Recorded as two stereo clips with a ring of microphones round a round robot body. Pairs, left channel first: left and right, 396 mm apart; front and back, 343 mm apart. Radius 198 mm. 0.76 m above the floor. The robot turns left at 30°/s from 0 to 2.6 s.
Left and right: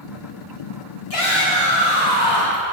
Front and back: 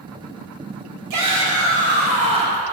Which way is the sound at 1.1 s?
145° left.